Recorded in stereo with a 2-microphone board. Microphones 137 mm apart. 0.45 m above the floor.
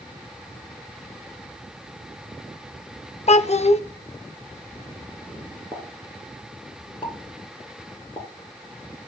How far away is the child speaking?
About 0.5 m.